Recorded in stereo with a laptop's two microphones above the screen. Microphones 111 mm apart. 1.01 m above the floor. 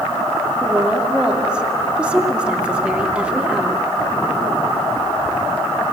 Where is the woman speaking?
10° right (ahead or behind), 2.5 m.